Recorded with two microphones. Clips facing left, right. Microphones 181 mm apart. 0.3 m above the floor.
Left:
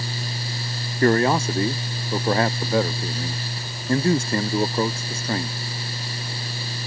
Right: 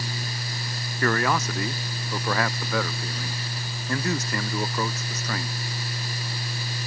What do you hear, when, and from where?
1.0 s a man speaking: 30° left (ahead or behind)